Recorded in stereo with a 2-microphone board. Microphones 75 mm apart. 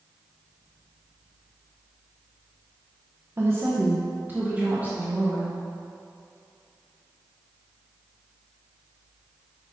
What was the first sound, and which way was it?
A woman speaking, 35° right (ahead or behind).